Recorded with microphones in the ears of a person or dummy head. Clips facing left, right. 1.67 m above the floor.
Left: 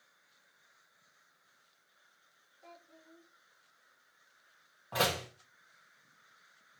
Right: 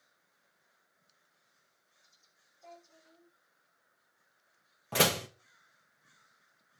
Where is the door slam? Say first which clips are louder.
Right 3 dB; 35° right (ahead or behind), 1.7 m.